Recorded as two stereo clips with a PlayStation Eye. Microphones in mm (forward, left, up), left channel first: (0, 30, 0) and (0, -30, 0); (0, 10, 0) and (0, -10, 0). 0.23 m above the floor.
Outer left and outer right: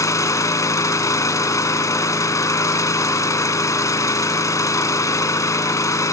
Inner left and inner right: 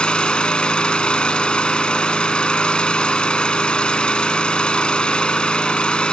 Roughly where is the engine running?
Left.